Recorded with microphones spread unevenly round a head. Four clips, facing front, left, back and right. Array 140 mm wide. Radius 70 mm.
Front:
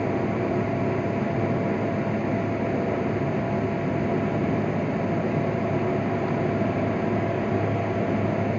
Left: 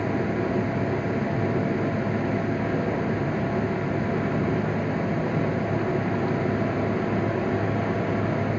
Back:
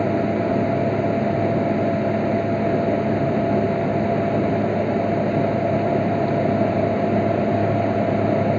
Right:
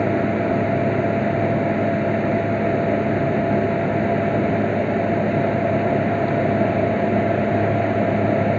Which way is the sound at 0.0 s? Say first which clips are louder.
Right 6 dB, back 5 dB; 140° right.